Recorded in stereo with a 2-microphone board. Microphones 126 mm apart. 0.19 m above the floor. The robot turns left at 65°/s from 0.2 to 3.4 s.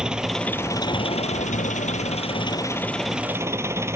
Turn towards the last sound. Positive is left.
turn(degrees=-20)